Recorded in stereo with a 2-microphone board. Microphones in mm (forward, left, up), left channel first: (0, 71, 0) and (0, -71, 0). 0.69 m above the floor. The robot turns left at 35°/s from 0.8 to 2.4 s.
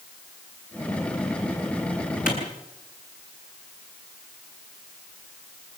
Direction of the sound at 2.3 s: 85° left.